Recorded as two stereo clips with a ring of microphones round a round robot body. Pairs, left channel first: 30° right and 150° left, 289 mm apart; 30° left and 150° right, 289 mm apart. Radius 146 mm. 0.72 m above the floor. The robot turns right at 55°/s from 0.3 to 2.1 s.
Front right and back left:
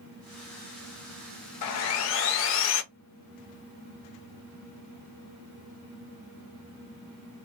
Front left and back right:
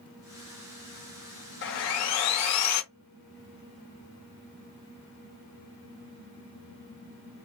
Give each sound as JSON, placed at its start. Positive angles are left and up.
{"t": 1.6, "sound": "sawing", "azimuth_deg": -20, "distance_m": 0.5}